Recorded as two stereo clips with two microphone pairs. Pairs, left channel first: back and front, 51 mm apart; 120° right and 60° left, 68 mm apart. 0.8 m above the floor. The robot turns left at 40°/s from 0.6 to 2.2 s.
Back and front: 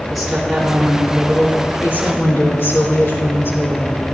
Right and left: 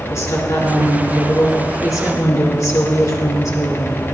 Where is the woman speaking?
85° right, 3.5 m; by 4.0 s 150° right, 3.5 m.